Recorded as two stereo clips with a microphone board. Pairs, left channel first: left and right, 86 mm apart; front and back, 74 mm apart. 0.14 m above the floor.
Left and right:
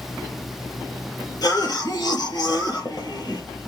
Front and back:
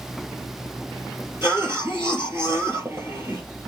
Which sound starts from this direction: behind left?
A cough, at 1.4 s.